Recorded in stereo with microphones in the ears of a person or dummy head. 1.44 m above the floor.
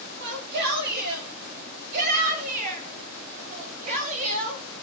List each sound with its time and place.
0.2 s a shout: 60° right (ahead or behind), 8 m; by 4.8 s 40° right (ahead or behind), 9 m